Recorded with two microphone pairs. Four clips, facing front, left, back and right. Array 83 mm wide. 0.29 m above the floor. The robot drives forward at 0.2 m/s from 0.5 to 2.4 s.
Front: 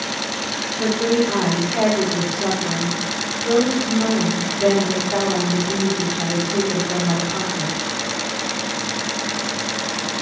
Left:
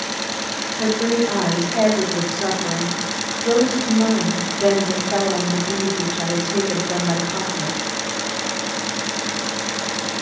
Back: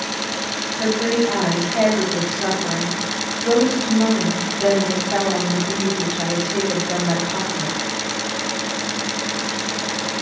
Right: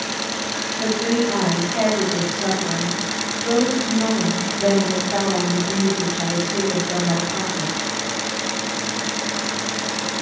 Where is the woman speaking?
145° left, 1.4 m; by 7.9 s 155° left, 1.6 m.